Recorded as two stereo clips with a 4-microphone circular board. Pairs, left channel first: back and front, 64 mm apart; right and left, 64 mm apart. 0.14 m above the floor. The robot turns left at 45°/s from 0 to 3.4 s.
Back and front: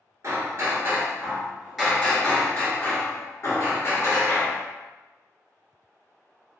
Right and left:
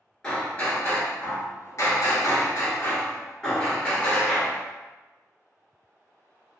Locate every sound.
0.2 s hammering: 15° right, 1.1 m; by 4.6 s 160° right, 1.1 m